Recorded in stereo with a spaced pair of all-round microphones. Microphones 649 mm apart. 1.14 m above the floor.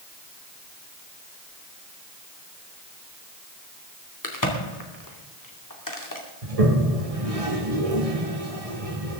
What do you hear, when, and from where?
4.2 s a crack: 30° left (ahead or behind), 2.5 m
6.4 s a toilet flushing: 60° right (ahead or behind), 1.7 m